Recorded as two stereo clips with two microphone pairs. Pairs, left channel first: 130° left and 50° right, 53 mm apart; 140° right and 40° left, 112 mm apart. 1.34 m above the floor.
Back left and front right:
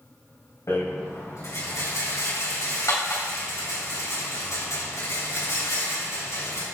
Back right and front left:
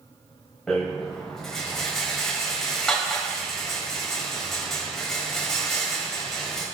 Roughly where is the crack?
I don't hear a crack.